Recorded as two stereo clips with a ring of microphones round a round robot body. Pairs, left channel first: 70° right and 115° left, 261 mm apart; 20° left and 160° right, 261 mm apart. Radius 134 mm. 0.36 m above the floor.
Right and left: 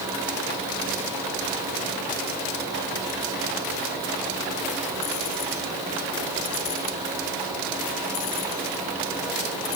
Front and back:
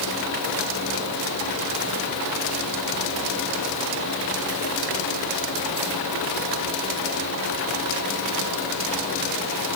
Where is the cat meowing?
I don't hear a cat meowing.